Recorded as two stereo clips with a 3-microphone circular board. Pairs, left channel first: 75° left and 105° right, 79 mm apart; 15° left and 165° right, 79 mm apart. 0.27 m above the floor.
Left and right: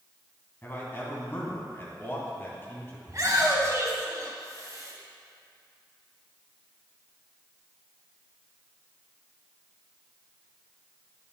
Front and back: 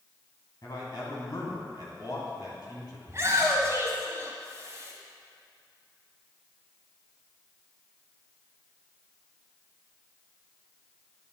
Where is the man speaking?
20° left, 2.5 m.